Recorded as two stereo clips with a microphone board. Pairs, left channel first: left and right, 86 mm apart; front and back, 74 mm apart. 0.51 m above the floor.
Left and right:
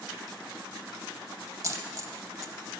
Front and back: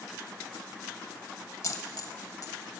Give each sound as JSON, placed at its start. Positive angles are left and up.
{"t": 1.6, "sound": "a dropped coin", "azimuth_deg": -40, "distance_m": 0.7}